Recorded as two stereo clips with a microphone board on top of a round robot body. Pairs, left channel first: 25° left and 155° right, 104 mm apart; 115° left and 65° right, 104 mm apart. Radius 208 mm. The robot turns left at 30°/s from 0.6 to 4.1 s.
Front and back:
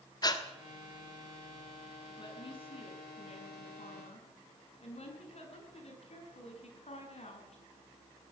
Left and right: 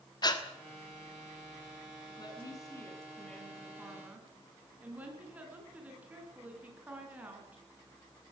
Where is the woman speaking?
65° left, 6 m; by 7.6 s 10° left, 6 m.